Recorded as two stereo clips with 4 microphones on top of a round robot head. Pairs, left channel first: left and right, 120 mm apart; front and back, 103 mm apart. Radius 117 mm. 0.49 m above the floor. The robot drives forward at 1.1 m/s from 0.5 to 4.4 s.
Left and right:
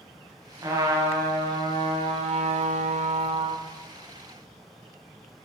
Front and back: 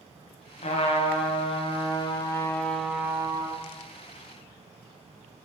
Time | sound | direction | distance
0.6 | a trumpet | 25° right | 2.5 m